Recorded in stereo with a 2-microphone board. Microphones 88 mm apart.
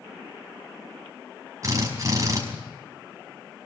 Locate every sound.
1.6 s a drill: 35° right (ahead or behind), 5.5 m